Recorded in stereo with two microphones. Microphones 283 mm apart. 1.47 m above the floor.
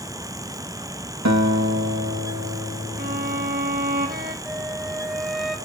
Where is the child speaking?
No child speaking in this recording.